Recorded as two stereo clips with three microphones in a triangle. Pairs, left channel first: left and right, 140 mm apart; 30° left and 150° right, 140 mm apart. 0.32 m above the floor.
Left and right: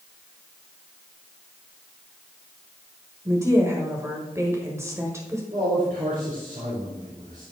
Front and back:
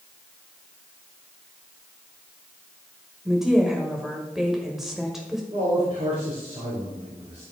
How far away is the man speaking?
About 3.5 m.